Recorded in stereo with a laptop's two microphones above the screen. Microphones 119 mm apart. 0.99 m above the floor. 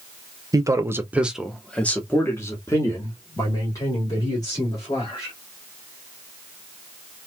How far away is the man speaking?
About 0.8 m.